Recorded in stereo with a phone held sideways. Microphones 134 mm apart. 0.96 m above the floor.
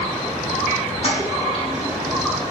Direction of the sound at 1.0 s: 50° left (ahead or behind).